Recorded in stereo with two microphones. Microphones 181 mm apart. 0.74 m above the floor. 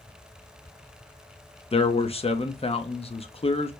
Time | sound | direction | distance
1.7 | a man speaking | 35° left (ahead or behind) | 0.6 m